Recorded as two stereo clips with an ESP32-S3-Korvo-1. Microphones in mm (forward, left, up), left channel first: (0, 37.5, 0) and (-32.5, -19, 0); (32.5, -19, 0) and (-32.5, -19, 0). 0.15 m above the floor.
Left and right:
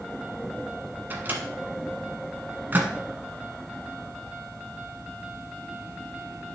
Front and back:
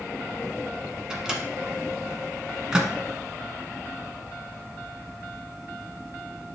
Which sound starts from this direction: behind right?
A microwave, at 1.1 s.